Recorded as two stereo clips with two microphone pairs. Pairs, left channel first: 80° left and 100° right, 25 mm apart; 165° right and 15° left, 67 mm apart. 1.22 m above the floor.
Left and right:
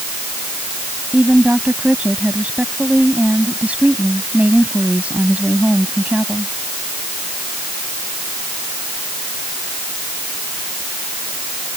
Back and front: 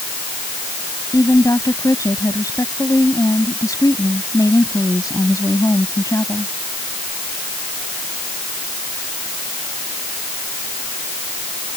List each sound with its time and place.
1.1 s a woman speaking: 135° right